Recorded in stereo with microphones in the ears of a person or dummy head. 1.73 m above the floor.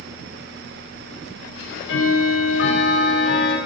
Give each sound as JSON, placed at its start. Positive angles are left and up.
{"t": 1.6, "sound": "ticking", "side_deg": 75, "distance_m": 4.5}